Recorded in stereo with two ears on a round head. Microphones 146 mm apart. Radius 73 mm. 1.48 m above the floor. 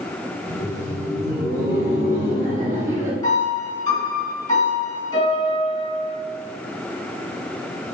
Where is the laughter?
20° right (ahead or behind), 1.9 m.